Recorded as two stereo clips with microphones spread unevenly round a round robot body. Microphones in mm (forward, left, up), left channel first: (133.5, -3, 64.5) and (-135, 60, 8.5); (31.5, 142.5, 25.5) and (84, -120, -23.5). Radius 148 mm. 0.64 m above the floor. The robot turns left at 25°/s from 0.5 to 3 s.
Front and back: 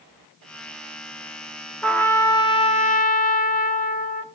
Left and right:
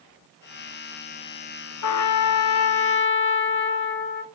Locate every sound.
1.8 s a trumpet: 80° left, 0.8 m; by 4.2 s 50° left, 0.8 m